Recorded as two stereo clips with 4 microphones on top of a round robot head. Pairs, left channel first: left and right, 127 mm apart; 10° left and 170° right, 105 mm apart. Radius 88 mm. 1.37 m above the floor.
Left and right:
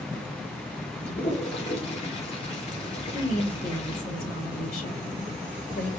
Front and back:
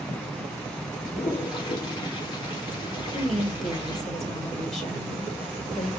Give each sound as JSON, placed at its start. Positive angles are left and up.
{"t": 1.1, "sound": "a toilet flushing", "azimuth_deg": 55, "distance_m": 2.5}
{"t": 3.1, "sound": "a woman speaking", "azimuth_deg": 100, "distance_m": 1.7}